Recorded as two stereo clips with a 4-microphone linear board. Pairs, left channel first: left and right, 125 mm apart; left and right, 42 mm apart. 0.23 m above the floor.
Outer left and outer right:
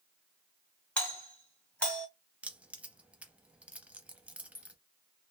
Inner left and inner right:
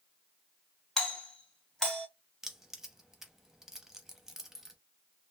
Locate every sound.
1.0 s a doorbell: 10° left (ahead or behind), 1.8 m
2.4 s keys jangling: 10° right (ahead or behind), 0.6 m